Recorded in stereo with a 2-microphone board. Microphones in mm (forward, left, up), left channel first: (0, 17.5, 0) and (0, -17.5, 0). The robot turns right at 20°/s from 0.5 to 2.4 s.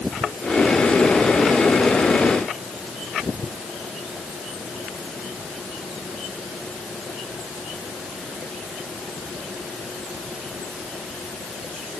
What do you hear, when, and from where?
Only background noise.